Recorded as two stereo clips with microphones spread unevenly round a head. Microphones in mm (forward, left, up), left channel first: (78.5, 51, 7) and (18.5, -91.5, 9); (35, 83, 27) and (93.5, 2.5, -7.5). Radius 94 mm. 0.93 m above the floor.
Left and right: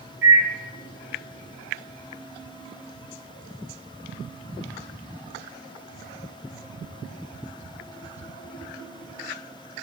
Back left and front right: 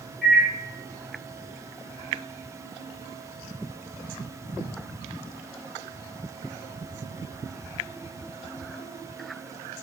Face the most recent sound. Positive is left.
turn(degrees=-135)